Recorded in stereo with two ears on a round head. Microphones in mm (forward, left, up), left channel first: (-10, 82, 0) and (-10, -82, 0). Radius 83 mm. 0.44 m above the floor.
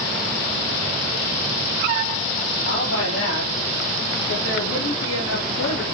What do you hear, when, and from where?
2.6 s a woman speaking: 80° left, 8.5 m